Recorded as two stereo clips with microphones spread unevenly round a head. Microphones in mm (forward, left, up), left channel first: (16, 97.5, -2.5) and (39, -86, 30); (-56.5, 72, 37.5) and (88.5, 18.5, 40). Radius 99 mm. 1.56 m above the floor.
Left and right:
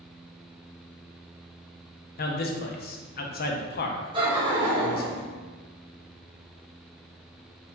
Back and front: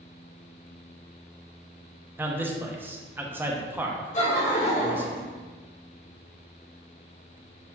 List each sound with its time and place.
2.2 s a man speaking: 55° left, 0.8 m
4.1 s laughter: 145° right, 1.5 m